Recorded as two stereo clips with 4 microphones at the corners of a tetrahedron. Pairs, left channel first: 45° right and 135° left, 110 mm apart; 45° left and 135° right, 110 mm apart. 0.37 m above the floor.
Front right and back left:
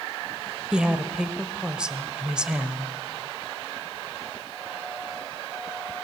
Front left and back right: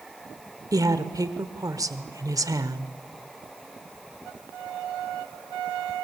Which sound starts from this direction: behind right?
A woman speaking, at 0.7 s.